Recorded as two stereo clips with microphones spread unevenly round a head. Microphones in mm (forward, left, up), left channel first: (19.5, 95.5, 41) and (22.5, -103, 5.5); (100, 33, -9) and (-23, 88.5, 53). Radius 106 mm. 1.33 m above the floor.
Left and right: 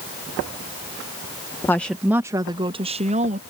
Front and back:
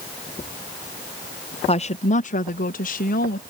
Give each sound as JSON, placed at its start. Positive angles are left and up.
{"t": 1.7, "sound": "a woman speaking", "azimuth_deg": 10}